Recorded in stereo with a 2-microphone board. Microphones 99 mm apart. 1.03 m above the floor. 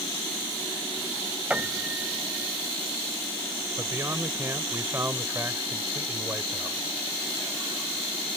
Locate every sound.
1.5 s a piano: 15° right (ahead or behind)
3.8 s a man speaking: 25° right (ahead or behind)